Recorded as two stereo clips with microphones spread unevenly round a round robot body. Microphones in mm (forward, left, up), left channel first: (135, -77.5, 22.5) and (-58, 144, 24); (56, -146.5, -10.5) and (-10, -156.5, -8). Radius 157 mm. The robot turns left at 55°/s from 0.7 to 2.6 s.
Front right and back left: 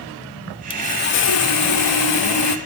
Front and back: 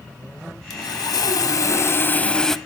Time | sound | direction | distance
0.7 | sawing | 25° left | 0.6 m